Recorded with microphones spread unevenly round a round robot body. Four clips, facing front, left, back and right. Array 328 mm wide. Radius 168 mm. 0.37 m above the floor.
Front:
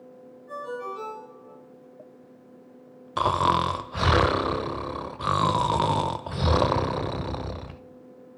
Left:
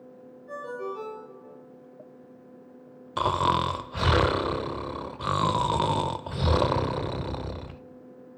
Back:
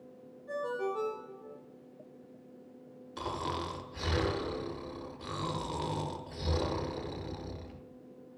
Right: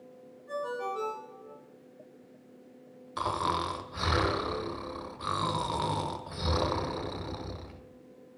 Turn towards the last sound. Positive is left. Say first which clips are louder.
# left 6 dB, front 14 dB
turn(degrees=30)